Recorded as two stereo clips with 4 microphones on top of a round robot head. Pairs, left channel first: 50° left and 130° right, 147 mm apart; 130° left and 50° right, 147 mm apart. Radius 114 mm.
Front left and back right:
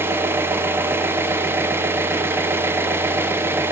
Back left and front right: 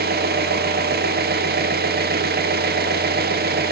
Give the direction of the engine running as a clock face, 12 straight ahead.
2 o'clock.